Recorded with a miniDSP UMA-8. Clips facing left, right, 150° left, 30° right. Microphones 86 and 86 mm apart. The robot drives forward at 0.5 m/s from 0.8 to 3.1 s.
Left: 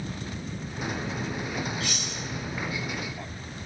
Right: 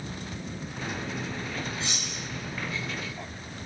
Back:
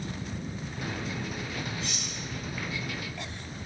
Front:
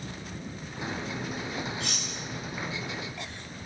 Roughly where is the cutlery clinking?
Ahead right.